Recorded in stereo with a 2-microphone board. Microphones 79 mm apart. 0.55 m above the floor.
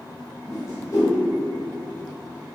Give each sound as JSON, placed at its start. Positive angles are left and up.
{"t": 0.5, "sound": "a whoosh", "side_deg": 45, "distance_m": 1.1}